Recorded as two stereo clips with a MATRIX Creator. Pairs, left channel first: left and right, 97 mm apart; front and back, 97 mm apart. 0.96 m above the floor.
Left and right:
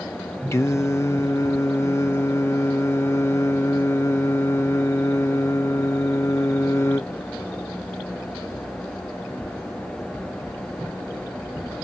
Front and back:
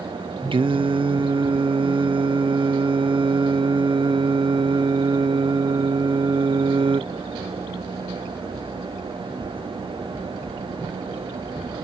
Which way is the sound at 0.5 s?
150° left.